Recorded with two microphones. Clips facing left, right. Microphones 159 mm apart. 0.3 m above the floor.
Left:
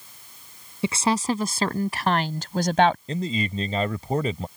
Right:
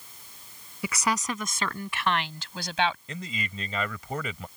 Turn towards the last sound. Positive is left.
turn(degrees=35)  # may be behind; listen again after turning